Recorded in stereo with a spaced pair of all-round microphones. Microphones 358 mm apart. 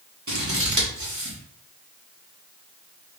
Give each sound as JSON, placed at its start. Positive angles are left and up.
{"t": 0.3, "sound": "scissors", "side_deg": -50, "distance_m": 1.2}